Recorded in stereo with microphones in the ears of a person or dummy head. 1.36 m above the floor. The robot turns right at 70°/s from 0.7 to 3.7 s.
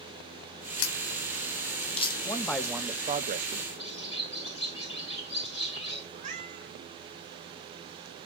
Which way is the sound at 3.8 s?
30° left (ahead or behind).